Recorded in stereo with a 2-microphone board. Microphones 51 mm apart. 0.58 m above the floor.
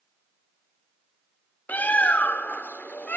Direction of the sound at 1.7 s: 35° left (ahead or behind).